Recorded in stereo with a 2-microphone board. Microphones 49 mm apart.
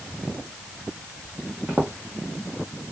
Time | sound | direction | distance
1.7 | footsteps | 20° right (ahead or behind) | 1.3 m